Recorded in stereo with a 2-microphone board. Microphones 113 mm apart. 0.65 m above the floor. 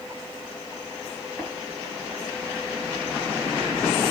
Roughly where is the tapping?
Left.